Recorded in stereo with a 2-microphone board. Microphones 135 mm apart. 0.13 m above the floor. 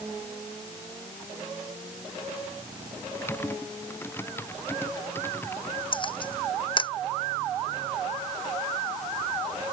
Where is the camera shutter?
40° left (ahead or behind).